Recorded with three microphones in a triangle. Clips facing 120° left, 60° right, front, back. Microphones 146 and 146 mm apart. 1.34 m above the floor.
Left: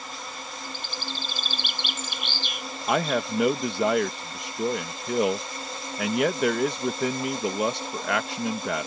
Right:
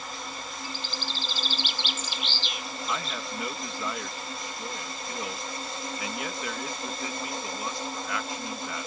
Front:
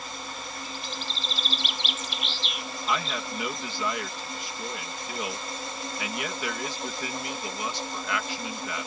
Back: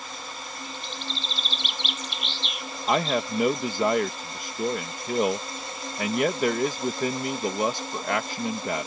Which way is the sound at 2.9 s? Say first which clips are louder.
Left 11 dB, back 7 dB; 135° left.